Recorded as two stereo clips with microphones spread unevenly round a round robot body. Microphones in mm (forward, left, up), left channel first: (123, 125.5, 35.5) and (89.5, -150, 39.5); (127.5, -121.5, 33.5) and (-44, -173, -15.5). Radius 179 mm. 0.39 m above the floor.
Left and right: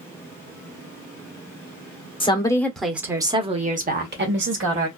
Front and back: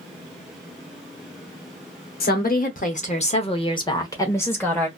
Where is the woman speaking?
25° left, 1.1 m; by 4.9 s 80° right, 1.4 m.